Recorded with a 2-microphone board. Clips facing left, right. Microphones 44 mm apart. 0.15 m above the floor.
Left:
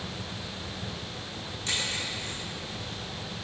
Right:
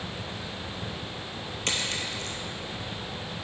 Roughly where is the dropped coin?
Right.